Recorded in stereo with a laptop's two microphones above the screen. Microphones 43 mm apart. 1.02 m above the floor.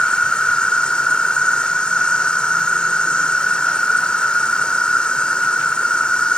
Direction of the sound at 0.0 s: 20° left (ahead or behind).